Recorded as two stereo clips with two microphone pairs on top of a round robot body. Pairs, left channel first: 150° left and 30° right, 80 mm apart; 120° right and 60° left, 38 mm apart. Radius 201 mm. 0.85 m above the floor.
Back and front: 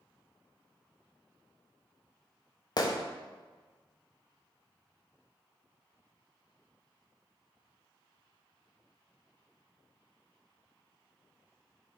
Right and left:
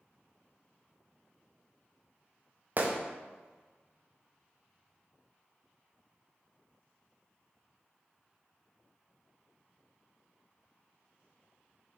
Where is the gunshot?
105° left, 0.5 m.